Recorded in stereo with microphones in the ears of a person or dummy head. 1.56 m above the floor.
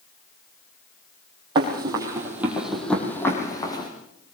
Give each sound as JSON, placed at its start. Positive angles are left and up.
{"t": 1.6, "sound": "running footsteps", "side_deg": -30, "distance_m": 3.5}